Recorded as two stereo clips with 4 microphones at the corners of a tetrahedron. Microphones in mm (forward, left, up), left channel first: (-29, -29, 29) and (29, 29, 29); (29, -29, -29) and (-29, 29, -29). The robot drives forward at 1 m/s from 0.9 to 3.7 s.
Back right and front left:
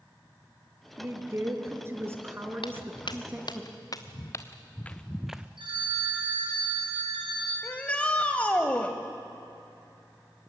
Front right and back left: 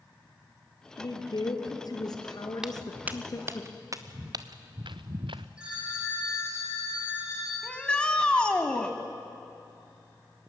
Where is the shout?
95° right, 1.0 m.